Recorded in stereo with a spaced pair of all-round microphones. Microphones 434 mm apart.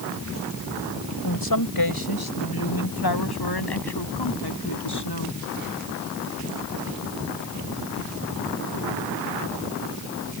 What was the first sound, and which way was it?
A woman speaking, 50° left (ahead or behind).